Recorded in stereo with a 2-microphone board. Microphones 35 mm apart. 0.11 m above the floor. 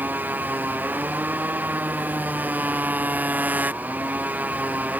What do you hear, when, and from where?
0.0 s a motorcycle: 65° right (ahead or behind); by 5.0 s 55° right (ahead or behind)